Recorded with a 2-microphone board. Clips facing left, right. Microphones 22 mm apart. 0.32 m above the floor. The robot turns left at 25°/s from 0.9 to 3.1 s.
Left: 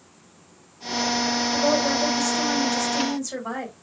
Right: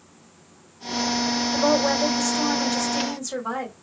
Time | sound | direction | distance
1.5 | a woman speaking | 140° right | 1.6 m